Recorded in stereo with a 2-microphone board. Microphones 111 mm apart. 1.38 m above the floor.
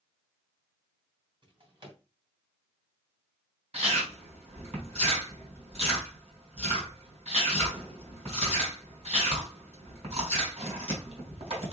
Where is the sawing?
No sawing in this recording.